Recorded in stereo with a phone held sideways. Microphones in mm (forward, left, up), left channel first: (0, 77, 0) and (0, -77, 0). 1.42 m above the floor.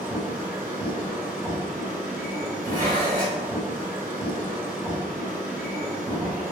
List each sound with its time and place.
0.0 s a machine running: 10° right (ahead or behind), 1.2 m
2.6 s dishes clattering: 65° right (ahead or behind), 1.1 m